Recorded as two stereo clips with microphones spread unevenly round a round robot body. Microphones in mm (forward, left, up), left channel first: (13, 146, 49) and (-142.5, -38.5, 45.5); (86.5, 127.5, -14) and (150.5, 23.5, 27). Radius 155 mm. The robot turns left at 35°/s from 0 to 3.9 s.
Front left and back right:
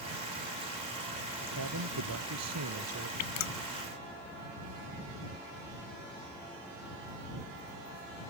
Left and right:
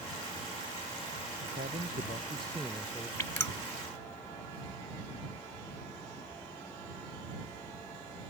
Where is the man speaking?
100° right; by 3.1 s 160° right.